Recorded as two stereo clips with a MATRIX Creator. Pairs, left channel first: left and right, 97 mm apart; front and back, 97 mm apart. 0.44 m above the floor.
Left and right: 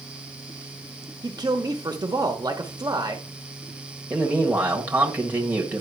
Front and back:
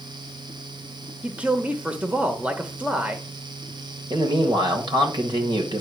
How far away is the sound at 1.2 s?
About 1.0 m.